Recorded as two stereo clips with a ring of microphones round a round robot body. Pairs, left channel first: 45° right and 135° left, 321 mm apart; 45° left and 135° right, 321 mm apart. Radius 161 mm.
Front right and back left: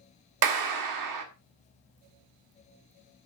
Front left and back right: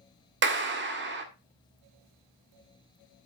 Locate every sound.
0.4 s a clap: 165° left, 1.5 m